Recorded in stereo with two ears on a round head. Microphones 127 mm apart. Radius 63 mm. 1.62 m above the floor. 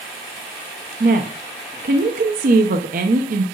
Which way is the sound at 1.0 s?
60° right (ahead or behind).